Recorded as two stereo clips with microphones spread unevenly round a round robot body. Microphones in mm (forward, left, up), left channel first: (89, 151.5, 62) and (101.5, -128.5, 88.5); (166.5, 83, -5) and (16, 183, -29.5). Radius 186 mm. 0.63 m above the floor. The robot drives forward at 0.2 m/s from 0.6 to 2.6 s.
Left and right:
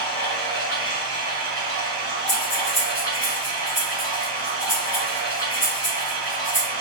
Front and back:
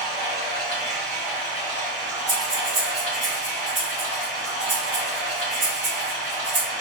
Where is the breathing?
140° left, 1.6 m.